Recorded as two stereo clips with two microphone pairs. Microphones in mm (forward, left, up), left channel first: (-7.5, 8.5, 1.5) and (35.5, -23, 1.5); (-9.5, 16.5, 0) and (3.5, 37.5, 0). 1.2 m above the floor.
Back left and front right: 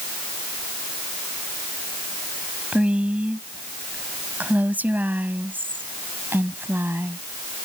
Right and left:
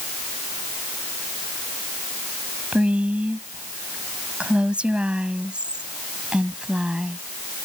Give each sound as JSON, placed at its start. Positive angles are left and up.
{"t": 2.7, "sound": "a woman speaking", "azimuth_deg": 30}